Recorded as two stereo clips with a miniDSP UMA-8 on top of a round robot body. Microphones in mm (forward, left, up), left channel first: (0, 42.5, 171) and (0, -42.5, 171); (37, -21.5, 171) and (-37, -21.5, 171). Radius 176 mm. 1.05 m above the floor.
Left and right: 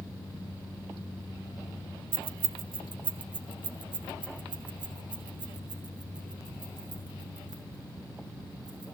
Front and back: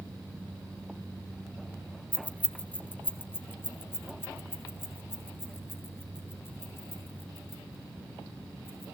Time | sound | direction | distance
2.1 | keys jangling | 75° right | 0.9 m